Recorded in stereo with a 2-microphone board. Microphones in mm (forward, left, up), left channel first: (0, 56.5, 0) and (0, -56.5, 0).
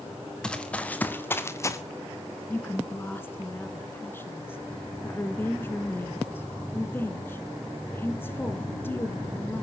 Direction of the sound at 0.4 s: 10° left (ahead or behind).